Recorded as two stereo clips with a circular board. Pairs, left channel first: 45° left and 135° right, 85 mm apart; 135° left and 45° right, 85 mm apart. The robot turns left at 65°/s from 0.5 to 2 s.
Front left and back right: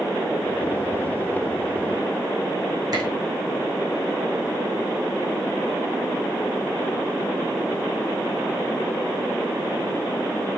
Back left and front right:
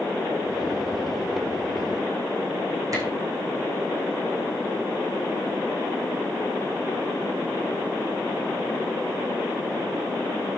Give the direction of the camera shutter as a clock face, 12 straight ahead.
3 o'clock.